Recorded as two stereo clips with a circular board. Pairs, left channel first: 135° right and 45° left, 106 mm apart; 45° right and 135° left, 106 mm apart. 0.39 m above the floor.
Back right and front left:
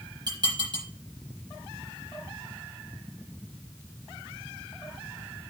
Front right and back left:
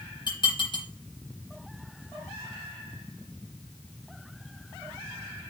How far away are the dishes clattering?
About 6.5 m.